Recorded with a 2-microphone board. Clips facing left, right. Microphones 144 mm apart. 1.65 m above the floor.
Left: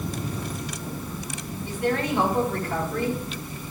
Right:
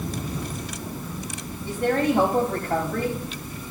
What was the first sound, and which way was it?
A woman speaking, 70° right (ahead or behind).